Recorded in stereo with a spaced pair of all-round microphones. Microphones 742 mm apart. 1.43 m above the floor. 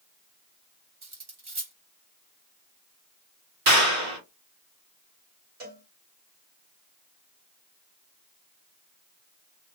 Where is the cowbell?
70° right (ahead or behind), 1.8 m.